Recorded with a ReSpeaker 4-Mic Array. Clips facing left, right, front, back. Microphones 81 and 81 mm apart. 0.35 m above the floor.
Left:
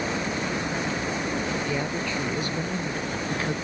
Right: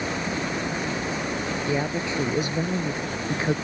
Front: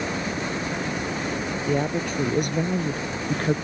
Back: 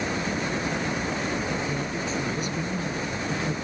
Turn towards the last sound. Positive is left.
turn(degrees=-25)